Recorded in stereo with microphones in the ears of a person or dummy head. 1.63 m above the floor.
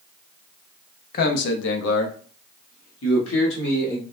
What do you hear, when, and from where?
1.1 s a man speaking: 50° left (ahead or behind), 0.6 m; by 4.0 s 65° left (ahead or behind), 1.8 m